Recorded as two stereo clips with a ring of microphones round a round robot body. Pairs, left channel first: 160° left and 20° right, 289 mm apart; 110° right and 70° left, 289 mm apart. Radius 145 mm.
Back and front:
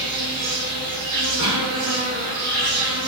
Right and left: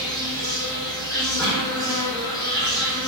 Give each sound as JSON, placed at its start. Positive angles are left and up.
{"t": 0.0, "sound": "an insect", "azimuth_deg": -35, "distance_m": 0.8}
{"t": 1.4, "sound": "a cough", "azimuth_deg": -20, "distance_m": 1.7}